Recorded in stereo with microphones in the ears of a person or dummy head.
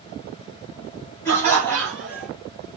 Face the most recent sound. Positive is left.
turn(degrees=5)  # may be behind; listen again after turning